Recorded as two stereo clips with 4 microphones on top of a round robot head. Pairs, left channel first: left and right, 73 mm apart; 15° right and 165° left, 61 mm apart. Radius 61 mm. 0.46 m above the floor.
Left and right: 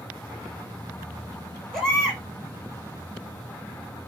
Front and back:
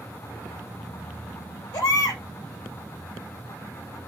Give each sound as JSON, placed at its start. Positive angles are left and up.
{"t": 1.7, "sound": "a baby crying", "azimuth_deg": 5, "distance_m": 4.0}